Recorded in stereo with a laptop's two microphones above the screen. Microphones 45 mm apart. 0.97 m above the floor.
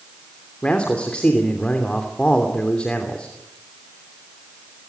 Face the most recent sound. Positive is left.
turn(degrees=25)  # may be behind; listen again after turning